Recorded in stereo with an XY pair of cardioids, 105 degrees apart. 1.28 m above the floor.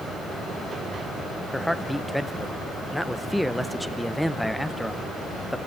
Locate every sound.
1.5 s a man speaking: 5° left, 0.7 m